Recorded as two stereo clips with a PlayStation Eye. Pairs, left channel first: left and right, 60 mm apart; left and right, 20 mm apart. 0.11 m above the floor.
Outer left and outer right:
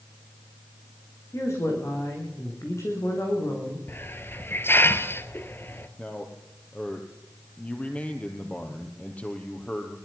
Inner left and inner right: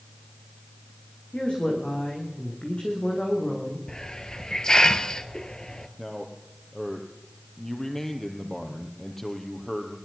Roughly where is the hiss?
Left.